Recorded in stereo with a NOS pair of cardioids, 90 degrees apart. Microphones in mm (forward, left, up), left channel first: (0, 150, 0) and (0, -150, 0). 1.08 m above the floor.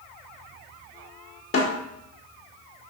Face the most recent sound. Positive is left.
turn(degrees=55)